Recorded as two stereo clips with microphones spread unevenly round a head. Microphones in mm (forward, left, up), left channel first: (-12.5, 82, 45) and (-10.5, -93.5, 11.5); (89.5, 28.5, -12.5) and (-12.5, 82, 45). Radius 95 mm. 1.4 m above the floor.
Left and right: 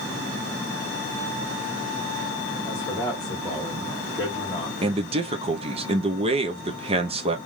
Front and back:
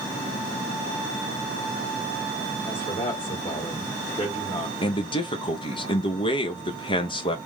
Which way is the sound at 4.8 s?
40° right.